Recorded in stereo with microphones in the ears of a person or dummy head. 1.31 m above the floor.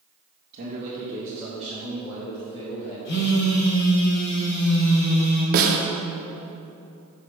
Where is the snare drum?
50° right (ahead or behind), 1.1 m.